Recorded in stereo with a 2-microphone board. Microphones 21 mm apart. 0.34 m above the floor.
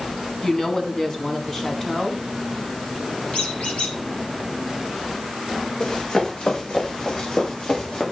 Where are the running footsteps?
50° left (ahead or behind), 5.5 m; by 8.0 s 35° left (ahead or behind), 5.5 m.